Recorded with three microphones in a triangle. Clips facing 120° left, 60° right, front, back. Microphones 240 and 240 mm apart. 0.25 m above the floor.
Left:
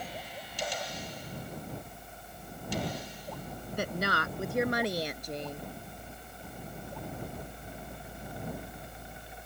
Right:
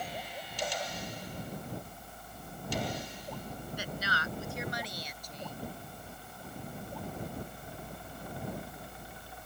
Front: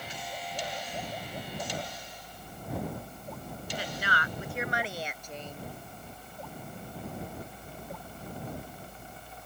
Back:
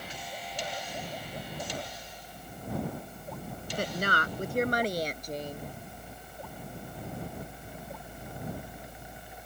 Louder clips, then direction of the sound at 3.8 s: Left 9 dB, back 7 dB; 145° left.